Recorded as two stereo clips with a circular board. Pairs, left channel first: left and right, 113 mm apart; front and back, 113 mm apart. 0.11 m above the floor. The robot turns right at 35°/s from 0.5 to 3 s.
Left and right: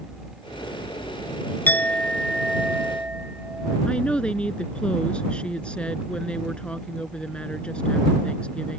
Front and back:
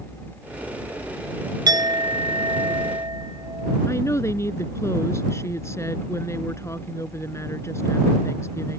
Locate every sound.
1.7 s a clink: 155° left; by 3.8 s 160° right
3.9 s a woman speaking: 20° left